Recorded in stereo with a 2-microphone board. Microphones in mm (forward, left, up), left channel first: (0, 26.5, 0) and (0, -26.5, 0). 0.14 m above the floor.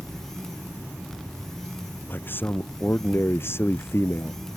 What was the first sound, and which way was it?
A man speaking, 40° left (ahead or behind).